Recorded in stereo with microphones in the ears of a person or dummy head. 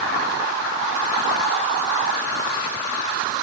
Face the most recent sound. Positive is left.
No sound to turn to.